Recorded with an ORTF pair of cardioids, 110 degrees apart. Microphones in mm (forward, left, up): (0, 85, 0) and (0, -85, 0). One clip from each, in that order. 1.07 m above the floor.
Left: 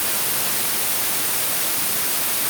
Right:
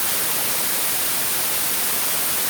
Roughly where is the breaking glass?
No breaking glass in this recording.